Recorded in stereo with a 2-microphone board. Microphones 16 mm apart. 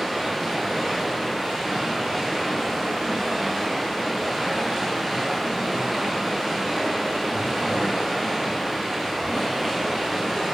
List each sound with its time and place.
0.0 s running water: 40° right (ahead or behind), 4 m